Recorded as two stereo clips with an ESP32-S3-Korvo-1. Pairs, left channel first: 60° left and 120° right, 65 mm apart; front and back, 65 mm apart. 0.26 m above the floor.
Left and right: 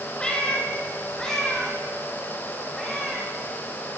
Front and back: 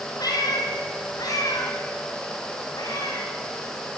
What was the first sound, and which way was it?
A cat meowing, 15° right.